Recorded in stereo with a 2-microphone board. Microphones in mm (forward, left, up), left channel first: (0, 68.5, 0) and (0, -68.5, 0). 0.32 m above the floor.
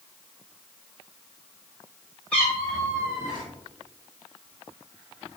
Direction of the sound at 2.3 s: 10° left (ahead or behind).